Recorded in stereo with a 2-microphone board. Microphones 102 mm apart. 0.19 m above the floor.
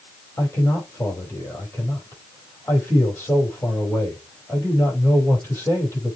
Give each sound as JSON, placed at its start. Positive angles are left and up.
{"t": 0.4, "sound": "a man speaking", "side_deg": 20, "distance_m": 5.5}